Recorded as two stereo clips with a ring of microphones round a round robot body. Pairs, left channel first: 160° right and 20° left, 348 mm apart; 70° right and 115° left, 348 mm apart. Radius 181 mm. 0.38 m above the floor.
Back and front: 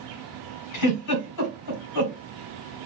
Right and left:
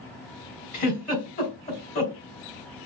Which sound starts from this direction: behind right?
A giggle, at 0.7 s.